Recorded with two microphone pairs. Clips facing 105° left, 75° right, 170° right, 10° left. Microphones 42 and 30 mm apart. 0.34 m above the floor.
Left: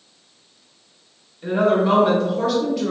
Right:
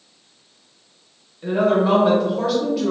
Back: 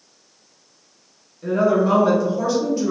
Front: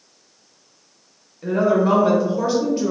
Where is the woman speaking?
5° right, 0.8 m.